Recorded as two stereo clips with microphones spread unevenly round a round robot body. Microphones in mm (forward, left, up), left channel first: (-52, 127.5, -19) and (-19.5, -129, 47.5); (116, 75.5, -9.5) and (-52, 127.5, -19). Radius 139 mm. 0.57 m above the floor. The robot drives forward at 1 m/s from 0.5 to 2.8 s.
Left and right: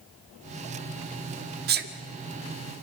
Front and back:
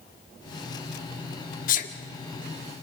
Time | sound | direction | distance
1.7 | a sneeze | 25° right | 1.4 m